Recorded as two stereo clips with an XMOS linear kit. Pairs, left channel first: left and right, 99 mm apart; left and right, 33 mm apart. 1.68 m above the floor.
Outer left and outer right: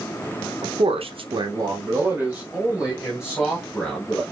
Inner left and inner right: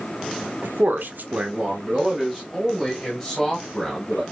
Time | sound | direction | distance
0.6 | a man speaking | 70° right (ahead or behind) | 0.8 m